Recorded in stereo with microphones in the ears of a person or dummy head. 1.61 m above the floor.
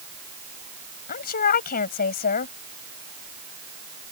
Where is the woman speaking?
45° left (ahead or behind).